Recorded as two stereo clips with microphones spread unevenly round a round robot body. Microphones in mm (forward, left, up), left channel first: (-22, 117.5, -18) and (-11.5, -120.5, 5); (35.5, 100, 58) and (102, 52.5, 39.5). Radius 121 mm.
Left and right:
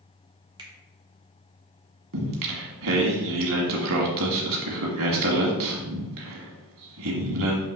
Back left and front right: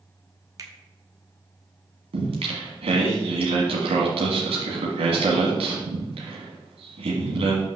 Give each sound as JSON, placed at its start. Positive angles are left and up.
{"t": 0.6, "sound": "a finger snap", "azimuth_deg": -10, "distance_m": 1.3}
{"t": 2.1, "sound": "singing", "azimuth_deg": -55, "distance_m": 1.5}